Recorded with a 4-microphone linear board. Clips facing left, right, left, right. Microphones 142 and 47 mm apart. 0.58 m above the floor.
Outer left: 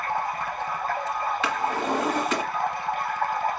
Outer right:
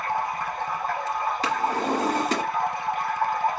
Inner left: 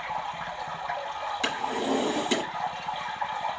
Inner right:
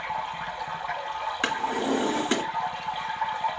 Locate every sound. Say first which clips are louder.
0.0 s running water: outer right 1 dB, inner right 1 dB; 20° right (ahead or behind), 2 m
1.4 s a drawer: outer right 2 dB, inner right 2 dB; 35° right (ahead or behind), 2 m